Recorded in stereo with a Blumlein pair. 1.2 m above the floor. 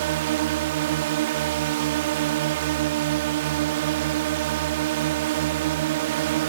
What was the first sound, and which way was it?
A drone, 55° right.